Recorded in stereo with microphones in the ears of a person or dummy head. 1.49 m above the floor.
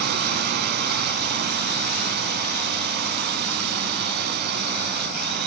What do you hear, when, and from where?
0.0 s a drone: 60° right (ahead or behind)